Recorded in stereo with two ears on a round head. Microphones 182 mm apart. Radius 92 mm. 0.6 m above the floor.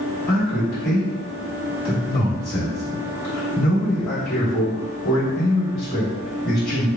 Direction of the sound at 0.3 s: 50° left (ahead or behind).